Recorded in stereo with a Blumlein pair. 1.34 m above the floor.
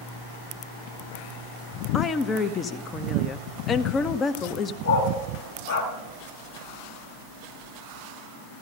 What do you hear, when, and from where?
1.9 s a woman speaking: 20° left, 1.0 m
4.8 s a dog barking: 65° left, 3 m